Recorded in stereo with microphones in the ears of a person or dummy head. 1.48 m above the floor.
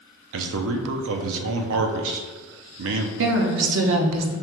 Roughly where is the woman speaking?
Right.